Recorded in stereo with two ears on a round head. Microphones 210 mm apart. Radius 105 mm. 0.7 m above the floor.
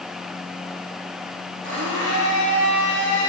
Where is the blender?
50° right (ahead or behind), 5 m.